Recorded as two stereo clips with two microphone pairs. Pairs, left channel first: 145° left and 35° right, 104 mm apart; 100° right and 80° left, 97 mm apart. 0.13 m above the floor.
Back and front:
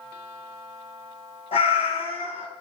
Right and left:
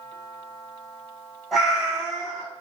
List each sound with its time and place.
1.5 s a cat meowing: 165° left, 0.9 m